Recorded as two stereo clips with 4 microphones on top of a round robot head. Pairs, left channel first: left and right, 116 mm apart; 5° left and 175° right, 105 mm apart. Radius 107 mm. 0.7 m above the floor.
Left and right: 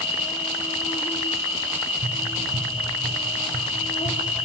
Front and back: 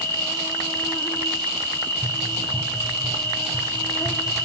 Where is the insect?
65° left, 3 m.